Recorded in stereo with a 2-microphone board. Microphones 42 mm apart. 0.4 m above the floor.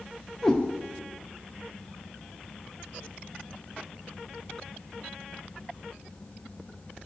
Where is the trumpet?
I don't hear a trumpet.